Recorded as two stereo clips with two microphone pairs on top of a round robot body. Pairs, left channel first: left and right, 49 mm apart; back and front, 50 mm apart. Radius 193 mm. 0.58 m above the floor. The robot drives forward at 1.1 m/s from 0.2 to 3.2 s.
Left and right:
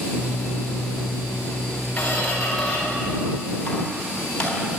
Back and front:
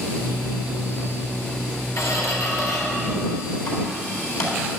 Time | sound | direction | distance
2.0 | a squeak | 155° left | 2.5 m